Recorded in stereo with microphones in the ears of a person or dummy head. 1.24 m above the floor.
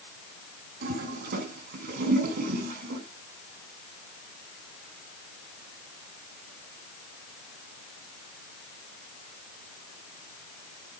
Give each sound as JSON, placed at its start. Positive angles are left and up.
{"t": 0.8, "sound": "a toilet flushing", "side_deg": -60, "distance_m": 3.0}